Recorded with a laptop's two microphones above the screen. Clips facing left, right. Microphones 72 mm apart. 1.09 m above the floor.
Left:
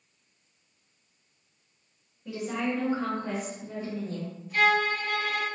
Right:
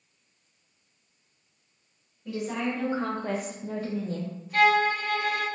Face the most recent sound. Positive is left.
turn(degrees=-60)  # may be behind; listen again after turning